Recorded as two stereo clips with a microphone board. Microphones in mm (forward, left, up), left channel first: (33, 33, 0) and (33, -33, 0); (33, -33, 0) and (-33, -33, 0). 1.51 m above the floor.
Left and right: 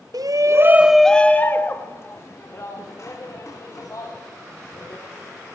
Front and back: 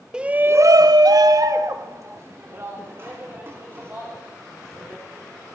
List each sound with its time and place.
0.1 s a shout: 100° right, 0.8 m; by 5.0 s 125° left, 4.5 m